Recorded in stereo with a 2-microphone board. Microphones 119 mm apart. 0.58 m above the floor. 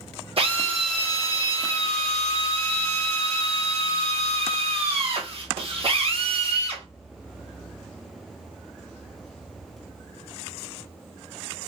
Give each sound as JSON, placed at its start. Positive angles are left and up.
{"t": 0.4, "sound": "a drill", "side_deg": -55, "distance_m": 1.1}